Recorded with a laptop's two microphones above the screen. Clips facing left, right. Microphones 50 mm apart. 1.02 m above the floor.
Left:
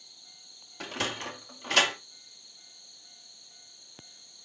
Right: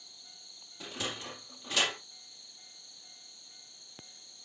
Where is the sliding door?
70° left (ahead or behind), 2 m.